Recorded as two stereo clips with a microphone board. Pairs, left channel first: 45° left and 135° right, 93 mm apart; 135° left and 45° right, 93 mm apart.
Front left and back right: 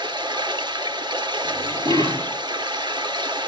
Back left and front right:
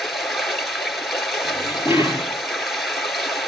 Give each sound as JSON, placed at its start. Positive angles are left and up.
{"t": 0.0, "sound": "running water", "azimuth_deg": -135, "distance_m": 1.9}
{"t": 1.4, "sound": "dishes clattering", "azimuth_deg": -105, "distance_m": 6.5}